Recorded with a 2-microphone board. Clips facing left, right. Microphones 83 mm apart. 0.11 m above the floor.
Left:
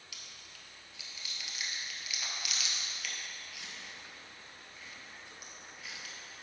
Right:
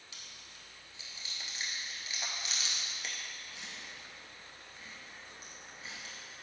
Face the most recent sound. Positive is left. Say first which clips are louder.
# even
turn(degrees=-35)  # may be behind; listen again after turning